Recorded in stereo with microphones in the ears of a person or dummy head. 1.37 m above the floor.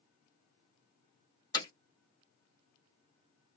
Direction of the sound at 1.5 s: 20° left (ahead or behind).